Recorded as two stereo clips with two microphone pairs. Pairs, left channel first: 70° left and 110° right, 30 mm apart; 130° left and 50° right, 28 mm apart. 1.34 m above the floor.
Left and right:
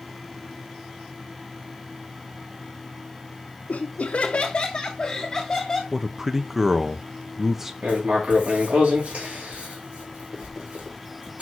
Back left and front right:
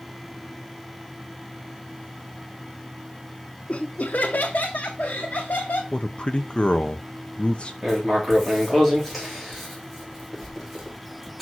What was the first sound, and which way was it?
Laughter, 90° left.